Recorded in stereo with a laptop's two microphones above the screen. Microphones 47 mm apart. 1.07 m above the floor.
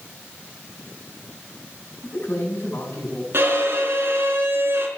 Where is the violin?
55° right (ahead or behind), 4.5 m.